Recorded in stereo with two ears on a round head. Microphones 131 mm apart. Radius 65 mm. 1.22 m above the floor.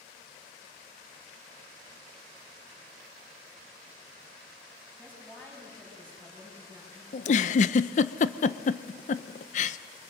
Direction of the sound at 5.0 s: 10° left (ahead or behind).